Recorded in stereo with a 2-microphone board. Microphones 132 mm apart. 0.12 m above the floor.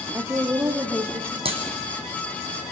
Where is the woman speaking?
20° right (ahead or behind), 2.5 m.